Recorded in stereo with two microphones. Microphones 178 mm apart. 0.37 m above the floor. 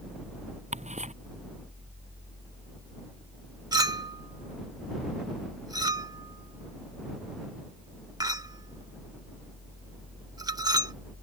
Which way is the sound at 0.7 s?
40° right (ahead or behind).